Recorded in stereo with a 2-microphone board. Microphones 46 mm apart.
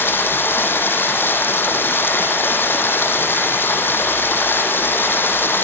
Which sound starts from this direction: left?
Running water, at 0.0 s.